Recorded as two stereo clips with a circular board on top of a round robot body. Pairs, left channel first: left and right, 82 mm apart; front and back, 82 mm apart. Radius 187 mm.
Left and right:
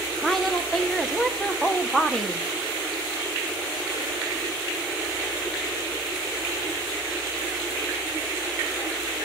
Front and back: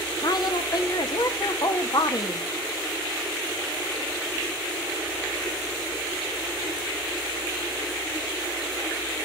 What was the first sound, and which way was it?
A woman speaking, 5° left.